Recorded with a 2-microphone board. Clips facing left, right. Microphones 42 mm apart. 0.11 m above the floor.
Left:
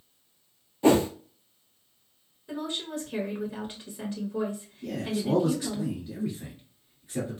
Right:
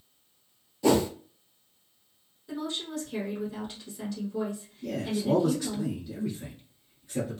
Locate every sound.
0.8 s a whoosh: 30° left (ahead or behind), 0.5 m
2.5 s a woman speaking: 20° left (ahead or behind), 1.2 m
4.8 s a man speaking: 15° left (ahead or behind), 1.3 m